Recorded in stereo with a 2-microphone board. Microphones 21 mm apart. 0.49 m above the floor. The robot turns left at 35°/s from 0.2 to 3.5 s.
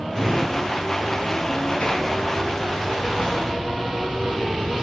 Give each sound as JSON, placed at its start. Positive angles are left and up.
{"t": 0.1, "sound": "a drawer", "side_deg": 25, "distance_m": 3.0}